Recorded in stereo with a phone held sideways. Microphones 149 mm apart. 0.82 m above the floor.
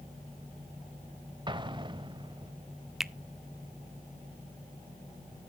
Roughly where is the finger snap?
Centre.